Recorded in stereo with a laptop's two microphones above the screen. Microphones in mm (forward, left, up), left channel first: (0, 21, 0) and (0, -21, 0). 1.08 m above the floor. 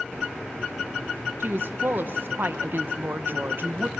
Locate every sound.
1.4 s a woman speaking: 55° right (ahead or behind), 0.7 m